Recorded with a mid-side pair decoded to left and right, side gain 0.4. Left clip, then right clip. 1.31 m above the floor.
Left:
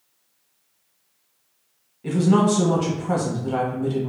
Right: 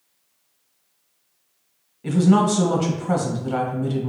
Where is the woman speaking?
20° right, 1.3 m.